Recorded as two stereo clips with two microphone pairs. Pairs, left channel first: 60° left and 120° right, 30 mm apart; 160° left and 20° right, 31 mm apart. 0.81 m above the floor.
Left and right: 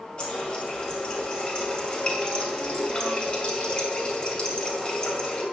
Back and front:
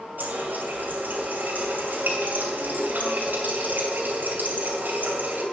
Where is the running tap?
Straight ahead, 2.5 m.